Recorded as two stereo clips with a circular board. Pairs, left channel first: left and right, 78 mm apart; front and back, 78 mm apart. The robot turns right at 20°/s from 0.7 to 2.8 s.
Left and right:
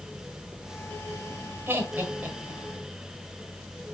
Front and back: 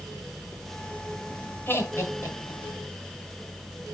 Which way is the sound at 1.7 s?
40° right.